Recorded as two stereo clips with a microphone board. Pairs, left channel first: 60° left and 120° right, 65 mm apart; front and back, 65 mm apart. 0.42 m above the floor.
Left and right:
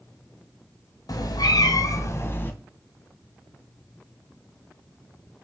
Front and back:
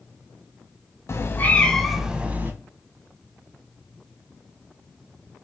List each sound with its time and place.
1.1 s a cat meowing: 45° left, 0.6 m; by 2.5 s 120° left, 0.7 m